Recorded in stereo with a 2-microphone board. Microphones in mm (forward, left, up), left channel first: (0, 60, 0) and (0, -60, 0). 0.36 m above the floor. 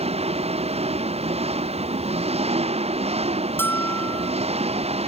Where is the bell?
20° left (ahead or behind).